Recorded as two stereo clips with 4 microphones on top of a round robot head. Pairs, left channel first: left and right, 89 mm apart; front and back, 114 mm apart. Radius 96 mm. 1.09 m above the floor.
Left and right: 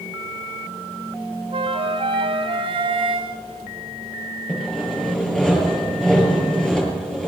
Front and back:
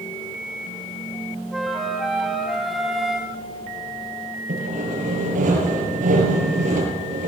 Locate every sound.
1.5 s a flute: 90° right, 2.0 m
4.5 s sawing: 170° left, 7 m